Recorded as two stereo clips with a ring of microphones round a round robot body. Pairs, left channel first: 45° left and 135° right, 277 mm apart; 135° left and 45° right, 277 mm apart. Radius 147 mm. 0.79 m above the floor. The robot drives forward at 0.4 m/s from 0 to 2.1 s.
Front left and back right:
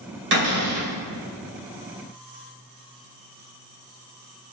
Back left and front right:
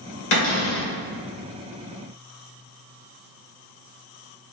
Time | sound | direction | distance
0.3 | a cupboard door | 170° left | 1.6 m